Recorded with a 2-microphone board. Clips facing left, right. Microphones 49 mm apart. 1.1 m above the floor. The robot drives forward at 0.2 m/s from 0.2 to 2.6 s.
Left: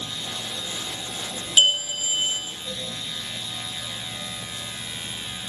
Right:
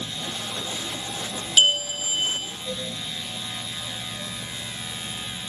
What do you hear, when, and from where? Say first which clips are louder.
1.6 s a bell: even; 15° left (ahead or behind), 0.7 m